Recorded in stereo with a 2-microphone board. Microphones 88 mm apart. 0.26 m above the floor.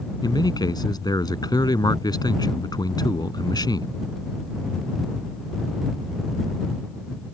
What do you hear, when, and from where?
0.2 s a man speaking: 50° left (ahead or behind)